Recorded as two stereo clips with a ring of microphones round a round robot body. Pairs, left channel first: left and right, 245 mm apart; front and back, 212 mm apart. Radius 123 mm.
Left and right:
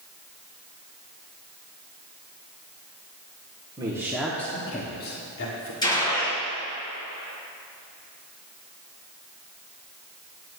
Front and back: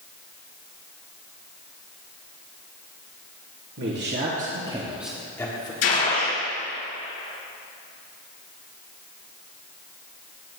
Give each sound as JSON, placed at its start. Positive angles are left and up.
{"t": 3.8, "sound": "a man speaking", "azimuth_deg": -160, "distance_m": 1.8}
{"t": 5.8, "sound": "a gunshot", "azimuth_deg": 15, "distance_m": 4.0}